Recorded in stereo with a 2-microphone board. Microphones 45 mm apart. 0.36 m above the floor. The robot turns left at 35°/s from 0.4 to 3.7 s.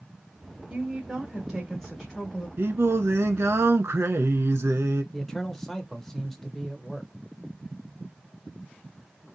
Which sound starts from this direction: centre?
A man speaking, at 5.1 s.